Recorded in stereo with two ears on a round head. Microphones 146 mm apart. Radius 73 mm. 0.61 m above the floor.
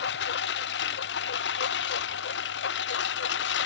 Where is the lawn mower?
75° left (ahead or behind); by 3.7 s 80° left.